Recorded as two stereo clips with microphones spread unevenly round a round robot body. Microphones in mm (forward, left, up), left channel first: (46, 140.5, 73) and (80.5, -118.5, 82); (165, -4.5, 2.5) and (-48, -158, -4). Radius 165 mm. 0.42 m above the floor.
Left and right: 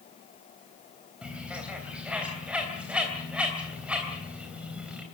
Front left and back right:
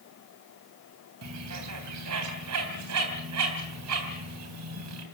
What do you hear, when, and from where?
1.2 s a bird: 170° right, 3 m